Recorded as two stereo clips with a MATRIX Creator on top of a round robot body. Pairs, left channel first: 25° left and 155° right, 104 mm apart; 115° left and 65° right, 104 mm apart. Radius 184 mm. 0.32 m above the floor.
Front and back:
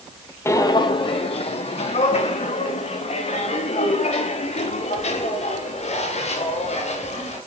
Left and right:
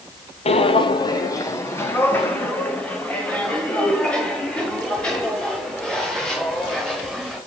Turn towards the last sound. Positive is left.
turn(degrees=25)